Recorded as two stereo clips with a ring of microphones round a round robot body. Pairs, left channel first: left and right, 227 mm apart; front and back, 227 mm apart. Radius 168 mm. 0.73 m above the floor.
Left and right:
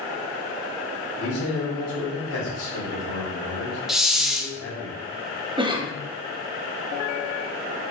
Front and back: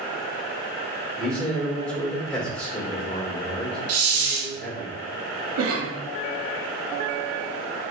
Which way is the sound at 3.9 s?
Straight behind.